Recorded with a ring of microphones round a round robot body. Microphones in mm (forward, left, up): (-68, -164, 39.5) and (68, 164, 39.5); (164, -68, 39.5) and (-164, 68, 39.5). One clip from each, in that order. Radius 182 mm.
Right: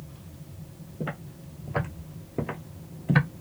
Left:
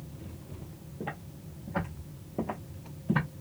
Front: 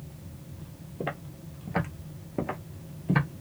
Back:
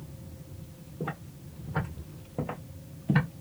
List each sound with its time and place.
1.0 s footsteps: 30° right, 1.3 m; by 3.3 s 115° right, 1.0 m